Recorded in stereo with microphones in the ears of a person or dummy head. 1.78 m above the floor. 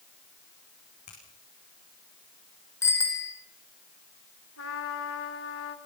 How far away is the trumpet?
About 3 m.